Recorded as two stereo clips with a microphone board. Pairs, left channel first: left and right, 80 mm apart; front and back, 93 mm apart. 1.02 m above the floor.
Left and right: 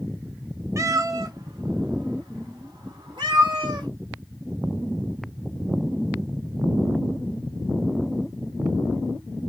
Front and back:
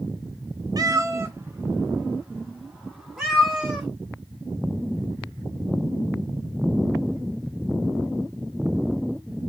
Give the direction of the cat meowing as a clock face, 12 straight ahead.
5 o'clock.